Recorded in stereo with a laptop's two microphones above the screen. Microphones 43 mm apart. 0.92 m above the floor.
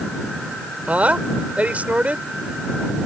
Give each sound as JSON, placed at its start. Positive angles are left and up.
{"t": 0.9, "sound": "a woman speaking", "side_deg": -35}